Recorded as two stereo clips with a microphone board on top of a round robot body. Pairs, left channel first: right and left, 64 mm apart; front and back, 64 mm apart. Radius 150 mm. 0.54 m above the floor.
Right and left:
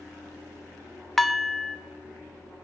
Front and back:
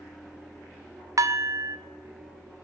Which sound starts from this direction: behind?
Dishes clattering, at 1.2 s.